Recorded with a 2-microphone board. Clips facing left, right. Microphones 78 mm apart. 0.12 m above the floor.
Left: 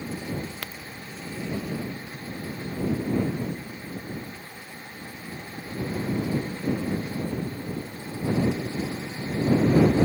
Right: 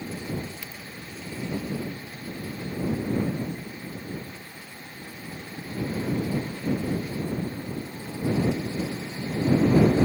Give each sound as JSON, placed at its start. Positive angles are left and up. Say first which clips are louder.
{"t": 0.6, "sound": "a crack", "louder": "left 3 dB", "side_deg": 60}